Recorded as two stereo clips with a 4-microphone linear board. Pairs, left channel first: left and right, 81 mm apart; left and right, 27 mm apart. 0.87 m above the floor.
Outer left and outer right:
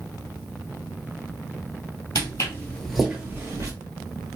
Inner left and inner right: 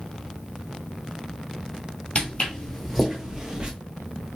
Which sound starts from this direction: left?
Footsteps, at 2.1 s.